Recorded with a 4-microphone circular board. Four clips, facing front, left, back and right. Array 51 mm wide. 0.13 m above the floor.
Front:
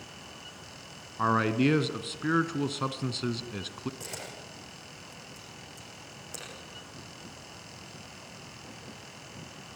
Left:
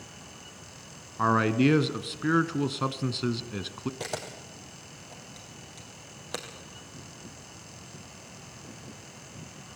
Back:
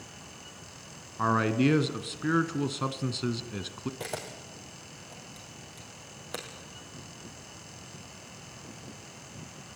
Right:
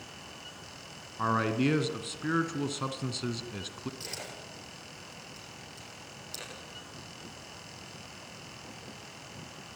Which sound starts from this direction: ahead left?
A man speaking, at 1.2 s.